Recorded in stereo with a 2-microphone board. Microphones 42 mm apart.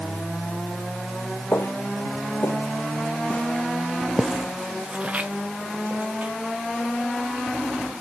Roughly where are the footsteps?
Left.